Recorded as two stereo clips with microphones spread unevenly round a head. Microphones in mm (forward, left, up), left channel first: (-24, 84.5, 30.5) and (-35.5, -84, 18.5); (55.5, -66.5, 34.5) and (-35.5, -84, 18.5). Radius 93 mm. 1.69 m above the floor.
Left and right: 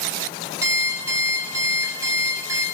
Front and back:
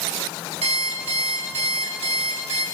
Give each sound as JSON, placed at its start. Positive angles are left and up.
{"t": 0.6, "sound": "an alarm clock", "azimuth_deg": -170, "distance_m": 4.5}